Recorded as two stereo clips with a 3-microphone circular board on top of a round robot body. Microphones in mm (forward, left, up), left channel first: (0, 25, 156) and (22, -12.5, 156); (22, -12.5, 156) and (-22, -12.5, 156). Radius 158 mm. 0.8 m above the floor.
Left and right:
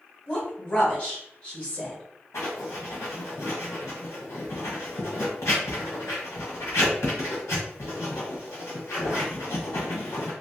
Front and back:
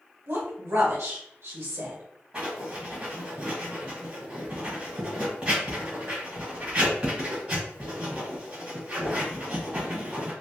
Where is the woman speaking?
Straight behind, 1.9 m.